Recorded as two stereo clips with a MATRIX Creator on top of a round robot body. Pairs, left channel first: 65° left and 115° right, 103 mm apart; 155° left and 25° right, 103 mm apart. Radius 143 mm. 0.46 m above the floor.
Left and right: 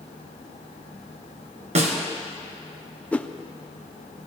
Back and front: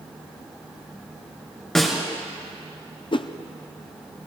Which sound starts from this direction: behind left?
A whoosh, at 3.1 s.